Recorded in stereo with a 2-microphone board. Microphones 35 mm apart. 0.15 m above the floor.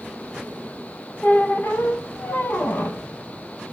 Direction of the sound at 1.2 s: 70° left (ahead or behind).